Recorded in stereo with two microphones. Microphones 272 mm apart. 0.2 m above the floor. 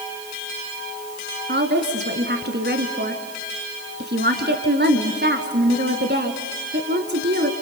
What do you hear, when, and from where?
1.5 s a woman speaking: 40° right (ahead or behind), 1.9 m